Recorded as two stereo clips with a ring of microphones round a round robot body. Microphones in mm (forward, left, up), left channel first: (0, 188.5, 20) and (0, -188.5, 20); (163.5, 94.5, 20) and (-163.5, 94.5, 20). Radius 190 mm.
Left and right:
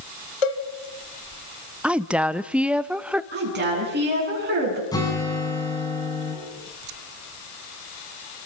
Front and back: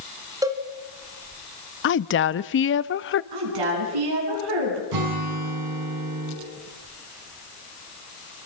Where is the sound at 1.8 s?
5° right, 0.8 m.